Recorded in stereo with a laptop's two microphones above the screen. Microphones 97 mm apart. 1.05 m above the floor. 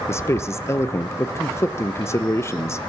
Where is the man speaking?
30° left (ahead or behind), 0.7 m.